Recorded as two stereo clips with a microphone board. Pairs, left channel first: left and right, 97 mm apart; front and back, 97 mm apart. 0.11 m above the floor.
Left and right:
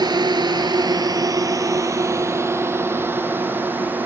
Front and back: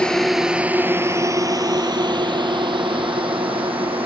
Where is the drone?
80° right; by 4.1 s 160° right.